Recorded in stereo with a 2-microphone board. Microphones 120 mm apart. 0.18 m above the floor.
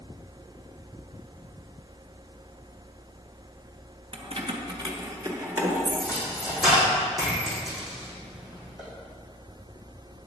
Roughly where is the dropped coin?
Centre.